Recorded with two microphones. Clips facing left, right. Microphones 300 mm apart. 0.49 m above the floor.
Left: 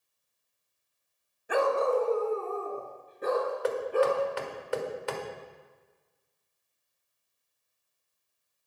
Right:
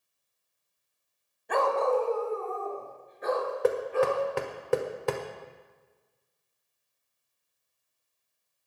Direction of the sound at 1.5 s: 5° left (ahead or behind).